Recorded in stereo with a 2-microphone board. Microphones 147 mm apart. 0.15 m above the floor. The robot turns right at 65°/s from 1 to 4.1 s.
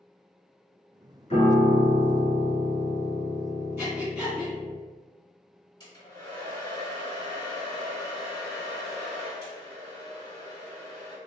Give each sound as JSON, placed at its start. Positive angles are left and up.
{"t": 1.3, "sound": "a piano", "azimuth_deg": 90, "distance_m": 1.3}
{"t": 3.8, "sound": "breathing", "side_deg": -15, "distance_m": 1.7}
{"t": 5.8, "sound": "a hair dryer", "side_deg": 30, "distance_m": 1.9}